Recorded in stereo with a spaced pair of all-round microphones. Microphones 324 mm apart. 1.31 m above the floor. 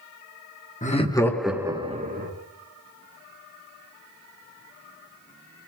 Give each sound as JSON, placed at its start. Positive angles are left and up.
{"t": 0.8, "sound": "laughter", "side_deg": 25, "distance_m": 1.0}